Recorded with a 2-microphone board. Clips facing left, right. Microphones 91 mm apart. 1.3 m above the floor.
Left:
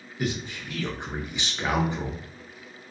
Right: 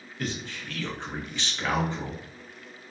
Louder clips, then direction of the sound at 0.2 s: Left 4 dB; 15° left (ahead or behind).